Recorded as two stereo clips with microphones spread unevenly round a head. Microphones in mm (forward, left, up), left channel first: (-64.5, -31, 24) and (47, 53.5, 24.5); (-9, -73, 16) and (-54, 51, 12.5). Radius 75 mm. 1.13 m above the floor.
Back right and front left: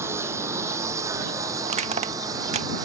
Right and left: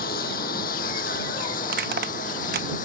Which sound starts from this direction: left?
Crushing, at 1.7 s.